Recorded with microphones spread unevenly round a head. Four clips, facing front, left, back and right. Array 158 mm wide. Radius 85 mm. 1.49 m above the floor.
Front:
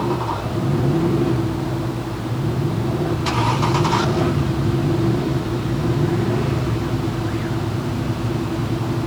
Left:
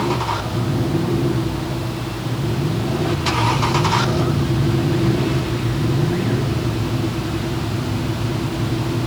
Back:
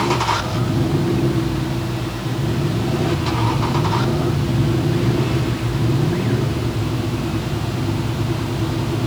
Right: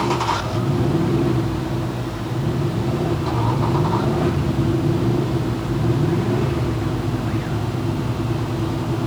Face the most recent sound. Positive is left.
No sound to turn to.